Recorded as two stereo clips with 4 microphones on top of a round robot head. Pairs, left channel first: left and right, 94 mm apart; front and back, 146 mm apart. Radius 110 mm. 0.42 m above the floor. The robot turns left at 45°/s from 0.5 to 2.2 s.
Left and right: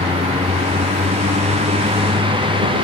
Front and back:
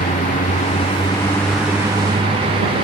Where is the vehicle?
45° right; by 2.8 s 120° right.